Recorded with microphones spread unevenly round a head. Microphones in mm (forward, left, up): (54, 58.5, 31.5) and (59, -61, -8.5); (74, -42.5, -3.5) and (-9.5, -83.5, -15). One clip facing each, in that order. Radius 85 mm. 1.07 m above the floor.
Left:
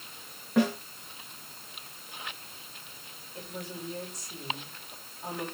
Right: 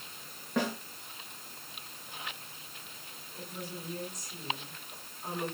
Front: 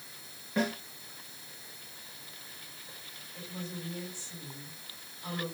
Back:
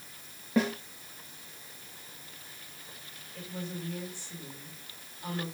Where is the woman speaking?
140° left, 7.5 m.